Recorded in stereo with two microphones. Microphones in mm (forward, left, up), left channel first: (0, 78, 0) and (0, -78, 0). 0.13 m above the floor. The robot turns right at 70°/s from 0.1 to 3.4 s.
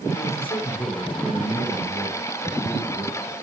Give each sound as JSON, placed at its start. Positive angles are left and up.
{"t": 0.2, "sound": "a man speaking", "azimuth_deg": 125, "distance_m": 8.0}